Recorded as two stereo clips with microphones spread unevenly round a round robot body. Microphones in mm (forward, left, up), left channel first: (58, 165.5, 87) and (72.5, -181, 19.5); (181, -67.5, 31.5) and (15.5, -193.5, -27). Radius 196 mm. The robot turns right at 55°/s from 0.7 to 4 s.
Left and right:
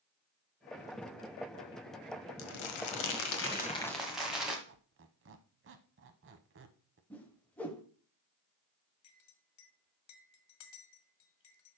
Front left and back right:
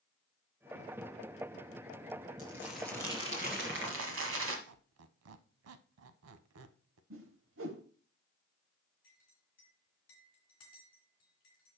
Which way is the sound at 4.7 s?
150° right.